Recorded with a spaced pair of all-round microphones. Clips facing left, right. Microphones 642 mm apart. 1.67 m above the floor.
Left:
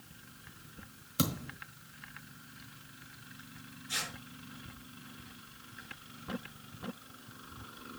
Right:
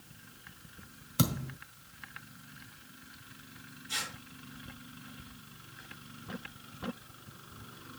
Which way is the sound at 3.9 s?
5° left (ahead or behind).